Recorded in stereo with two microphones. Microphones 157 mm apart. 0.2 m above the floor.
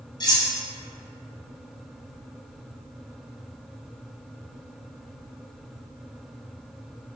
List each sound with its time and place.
0.2 s cutlery clinking: 25° left (ahead or behind), 0.8 m